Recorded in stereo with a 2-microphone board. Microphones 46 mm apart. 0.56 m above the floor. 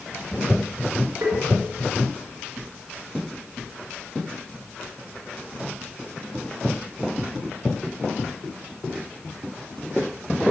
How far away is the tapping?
About 3 m.